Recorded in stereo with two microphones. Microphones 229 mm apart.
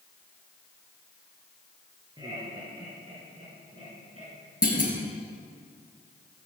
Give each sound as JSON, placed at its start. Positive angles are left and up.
{"t": 2.2, "sound": "laughter", "side_deg": -20, "distance_m": 7.0}
{"t": 4.6, "sound": "a clunk", "side_deg": 40, "distance_m": 3.5}